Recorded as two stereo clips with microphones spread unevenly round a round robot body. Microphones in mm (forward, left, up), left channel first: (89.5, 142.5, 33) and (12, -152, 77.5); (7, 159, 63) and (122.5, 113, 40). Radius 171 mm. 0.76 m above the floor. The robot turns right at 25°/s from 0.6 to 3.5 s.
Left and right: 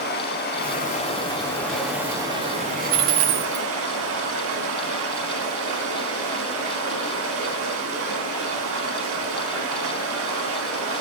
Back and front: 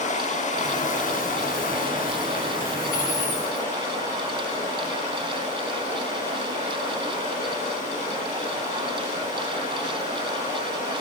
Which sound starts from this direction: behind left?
Running water, at 0.0 s.